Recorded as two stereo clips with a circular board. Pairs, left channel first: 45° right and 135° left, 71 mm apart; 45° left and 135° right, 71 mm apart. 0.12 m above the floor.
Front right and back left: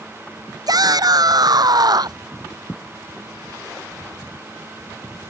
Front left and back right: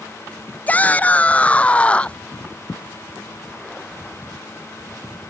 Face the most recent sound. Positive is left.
turn(degrees=115)